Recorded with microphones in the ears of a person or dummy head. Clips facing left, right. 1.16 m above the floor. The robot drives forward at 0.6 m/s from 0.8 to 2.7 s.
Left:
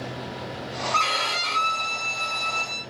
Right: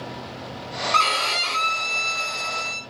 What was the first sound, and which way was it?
A violin, 40° right (ahead or behind).